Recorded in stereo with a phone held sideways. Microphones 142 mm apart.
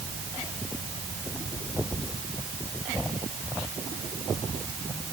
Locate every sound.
Only background noise.